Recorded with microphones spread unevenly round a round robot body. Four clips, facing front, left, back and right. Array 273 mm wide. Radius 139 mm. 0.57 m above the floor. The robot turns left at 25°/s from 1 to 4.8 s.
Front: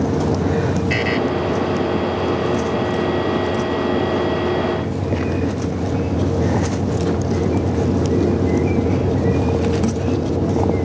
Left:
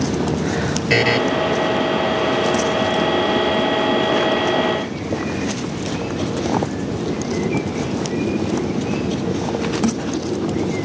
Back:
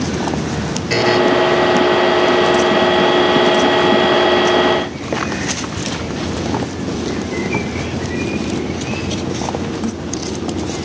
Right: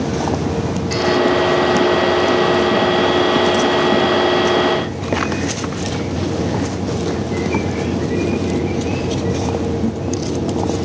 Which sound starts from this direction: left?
A buzzer, at 0.9 s.